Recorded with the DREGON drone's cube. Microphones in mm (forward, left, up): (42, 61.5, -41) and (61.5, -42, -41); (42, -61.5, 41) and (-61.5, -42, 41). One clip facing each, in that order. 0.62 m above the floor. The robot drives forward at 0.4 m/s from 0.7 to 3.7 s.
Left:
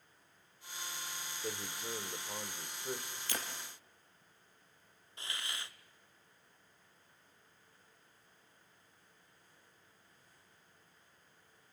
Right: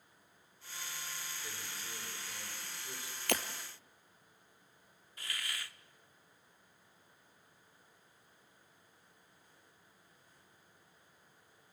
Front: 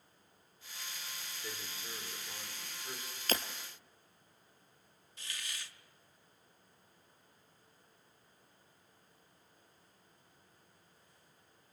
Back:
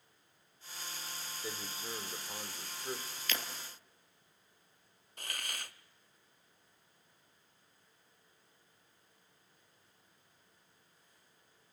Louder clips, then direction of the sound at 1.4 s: Left 6 dB, back 4 dB; 100° left.